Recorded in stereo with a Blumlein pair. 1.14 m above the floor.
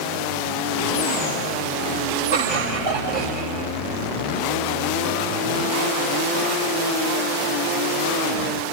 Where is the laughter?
65° right, 2.5 m; by 3.7 s 45° right, 4 m.